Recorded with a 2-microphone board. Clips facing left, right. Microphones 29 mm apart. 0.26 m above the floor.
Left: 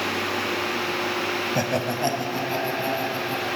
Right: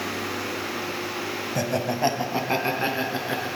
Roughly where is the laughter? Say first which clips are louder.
Left 1 dB; centre.